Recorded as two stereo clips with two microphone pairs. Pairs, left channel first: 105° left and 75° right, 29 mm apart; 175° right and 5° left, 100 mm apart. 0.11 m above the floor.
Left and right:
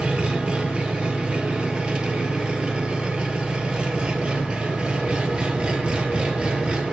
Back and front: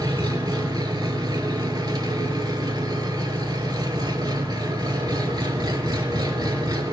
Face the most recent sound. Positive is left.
turn(degrees=-30)